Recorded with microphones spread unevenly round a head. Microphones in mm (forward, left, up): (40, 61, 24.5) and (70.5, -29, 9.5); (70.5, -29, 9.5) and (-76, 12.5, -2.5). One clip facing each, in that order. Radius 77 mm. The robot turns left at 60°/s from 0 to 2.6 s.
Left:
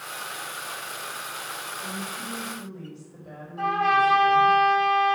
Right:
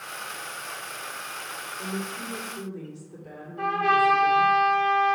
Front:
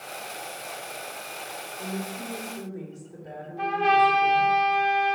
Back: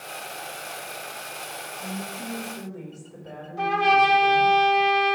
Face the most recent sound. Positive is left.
turn(degrees=-175)